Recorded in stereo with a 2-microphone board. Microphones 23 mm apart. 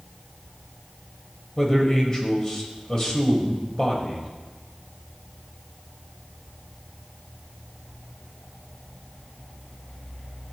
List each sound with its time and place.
1.6 s a man speaking: 25° left (ahead or behind), 1.7 m